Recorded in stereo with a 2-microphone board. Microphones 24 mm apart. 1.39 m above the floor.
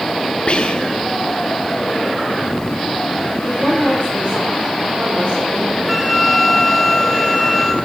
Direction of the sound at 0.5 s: 50° left (ahead or behind).